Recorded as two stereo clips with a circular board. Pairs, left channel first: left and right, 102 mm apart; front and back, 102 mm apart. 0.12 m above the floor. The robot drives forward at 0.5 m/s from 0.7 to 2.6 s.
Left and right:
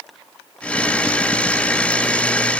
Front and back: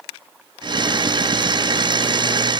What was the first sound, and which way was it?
Only background noise.